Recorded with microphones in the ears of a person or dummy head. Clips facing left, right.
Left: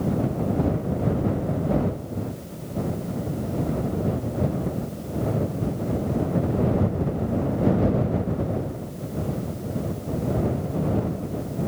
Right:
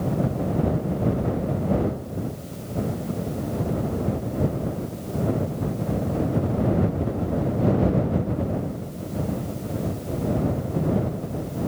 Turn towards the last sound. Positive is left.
No sound to turn to.